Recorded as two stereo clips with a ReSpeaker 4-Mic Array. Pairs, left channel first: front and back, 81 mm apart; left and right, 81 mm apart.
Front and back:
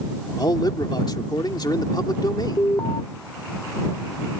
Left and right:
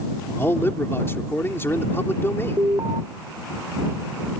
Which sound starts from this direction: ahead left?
A man speaking, at 0.4 s.